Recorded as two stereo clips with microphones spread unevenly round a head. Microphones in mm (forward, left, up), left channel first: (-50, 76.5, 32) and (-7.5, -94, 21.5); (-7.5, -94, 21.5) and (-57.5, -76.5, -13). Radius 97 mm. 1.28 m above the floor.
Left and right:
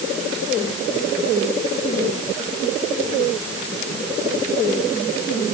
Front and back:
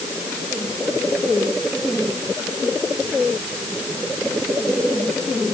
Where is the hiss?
I don't hear a hiss.